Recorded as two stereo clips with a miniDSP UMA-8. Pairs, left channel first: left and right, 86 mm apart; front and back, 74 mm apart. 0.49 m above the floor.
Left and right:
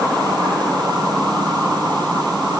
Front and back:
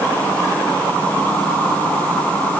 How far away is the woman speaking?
I don't hear a woman speaking.